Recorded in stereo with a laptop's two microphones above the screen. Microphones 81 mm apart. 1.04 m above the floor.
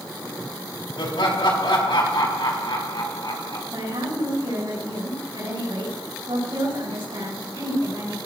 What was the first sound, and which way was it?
Laughter, 80° left.